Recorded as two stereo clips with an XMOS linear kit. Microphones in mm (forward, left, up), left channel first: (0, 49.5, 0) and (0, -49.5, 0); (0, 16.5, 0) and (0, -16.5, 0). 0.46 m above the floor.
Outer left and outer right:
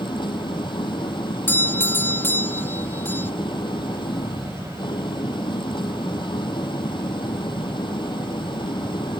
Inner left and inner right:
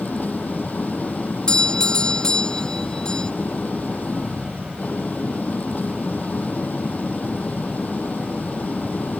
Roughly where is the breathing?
I don't hear breathing.